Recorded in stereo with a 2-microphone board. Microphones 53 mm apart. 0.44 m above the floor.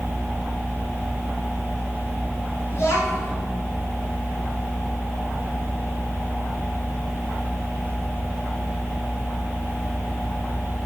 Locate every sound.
2.7 s a child speaking: 60° left (ahead or behind), 2 m